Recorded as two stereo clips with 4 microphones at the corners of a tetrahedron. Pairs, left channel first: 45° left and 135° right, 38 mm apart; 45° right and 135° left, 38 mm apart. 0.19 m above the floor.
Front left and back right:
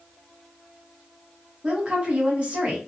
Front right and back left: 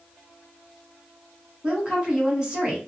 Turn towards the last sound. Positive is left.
turn(degrees=-170)